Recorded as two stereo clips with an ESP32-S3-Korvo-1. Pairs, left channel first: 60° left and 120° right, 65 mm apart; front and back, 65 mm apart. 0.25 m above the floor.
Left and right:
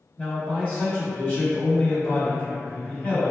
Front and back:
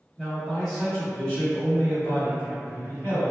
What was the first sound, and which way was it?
A man speaking, 100° left.